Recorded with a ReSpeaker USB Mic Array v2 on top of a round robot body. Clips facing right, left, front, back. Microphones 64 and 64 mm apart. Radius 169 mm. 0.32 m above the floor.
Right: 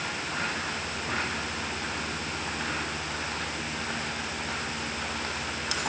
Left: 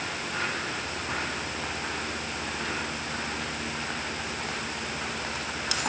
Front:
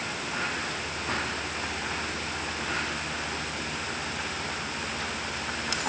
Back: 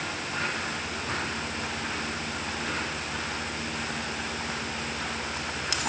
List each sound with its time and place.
Only background noise.